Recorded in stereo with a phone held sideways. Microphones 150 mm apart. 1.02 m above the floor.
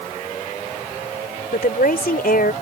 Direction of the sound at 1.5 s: 80° left.